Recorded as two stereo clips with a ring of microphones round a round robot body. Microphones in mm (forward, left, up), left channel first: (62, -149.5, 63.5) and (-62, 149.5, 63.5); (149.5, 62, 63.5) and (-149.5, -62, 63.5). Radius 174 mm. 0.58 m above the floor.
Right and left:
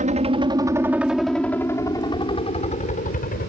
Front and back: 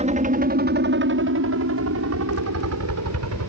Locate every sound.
0.0 s a helicopter: 155° left; by 3.5 s 125° right